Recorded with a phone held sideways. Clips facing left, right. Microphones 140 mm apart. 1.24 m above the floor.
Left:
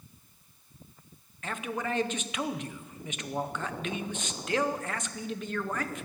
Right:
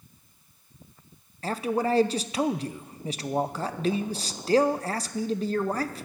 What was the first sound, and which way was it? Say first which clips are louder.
A man speaking: right 8 dB; 35° right (ahead or behind).